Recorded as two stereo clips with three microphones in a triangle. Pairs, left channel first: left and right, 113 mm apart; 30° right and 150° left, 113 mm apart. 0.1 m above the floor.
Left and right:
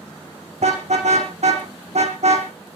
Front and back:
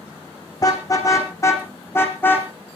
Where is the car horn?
90° right, 3.5 m; by 2.5 s 105° right, 3 m.